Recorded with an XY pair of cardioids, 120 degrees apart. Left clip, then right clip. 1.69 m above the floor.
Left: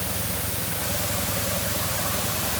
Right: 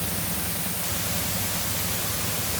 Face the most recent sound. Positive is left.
No sound to turn to.